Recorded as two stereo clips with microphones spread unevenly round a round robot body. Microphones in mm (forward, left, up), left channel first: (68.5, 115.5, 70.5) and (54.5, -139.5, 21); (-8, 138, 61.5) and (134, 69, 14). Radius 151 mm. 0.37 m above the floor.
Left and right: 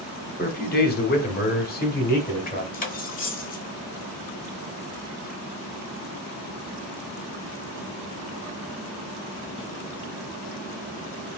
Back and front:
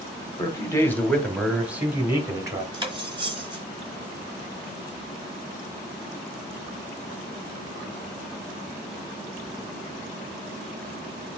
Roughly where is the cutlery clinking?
Ahead left.